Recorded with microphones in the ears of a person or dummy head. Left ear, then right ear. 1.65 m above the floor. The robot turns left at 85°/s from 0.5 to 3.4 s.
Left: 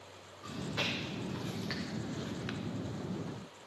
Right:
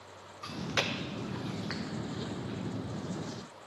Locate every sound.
0.4 s chewing: 75° right (ahead or behind), 0.7 m; by 2.6 s 75° left (ahead or behind), 0.7 m